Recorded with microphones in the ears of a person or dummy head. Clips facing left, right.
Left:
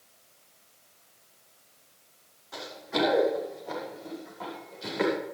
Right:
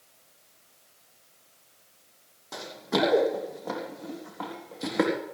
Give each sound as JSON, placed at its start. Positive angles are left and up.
{"t": 2.5, "sound": "running footsteps", "side_deg": -55, "distance_m": 3.0}